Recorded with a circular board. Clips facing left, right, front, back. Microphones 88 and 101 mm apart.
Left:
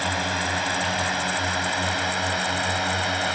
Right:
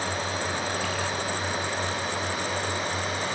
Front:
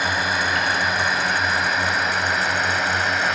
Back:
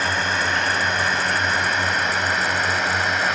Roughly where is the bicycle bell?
I don't hear a bicycle bell.